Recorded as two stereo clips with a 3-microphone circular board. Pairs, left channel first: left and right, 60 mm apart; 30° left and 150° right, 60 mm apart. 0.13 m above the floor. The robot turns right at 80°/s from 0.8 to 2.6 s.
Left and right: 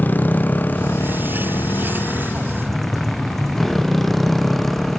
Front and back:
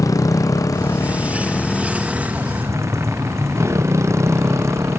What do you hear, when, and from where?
0.0 s a motorcycle: 35° left; by 5.0 s 175° left